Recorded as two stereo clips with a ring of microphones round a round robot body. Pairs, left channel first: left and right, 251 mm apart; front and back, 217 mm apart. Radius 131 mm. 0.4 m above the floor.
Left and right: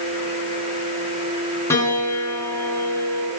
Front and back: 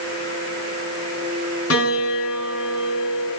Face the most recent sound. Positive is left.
turn(degrees=10)